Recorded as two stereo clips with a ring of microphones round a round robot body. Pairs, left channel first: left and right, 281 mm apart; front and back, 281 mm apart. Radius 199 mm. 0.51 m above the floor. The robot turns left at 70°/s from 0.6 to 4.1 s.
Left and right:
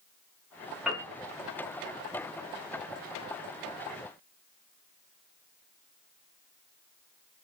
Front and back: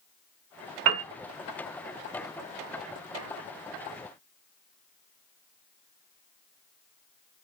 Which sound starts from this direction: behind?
A piano, at 0.8 s.